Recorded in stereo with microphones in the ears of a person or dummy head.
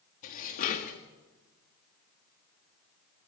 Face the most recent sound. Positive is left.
turn(degrees=40)  # may be behind; listen again after turning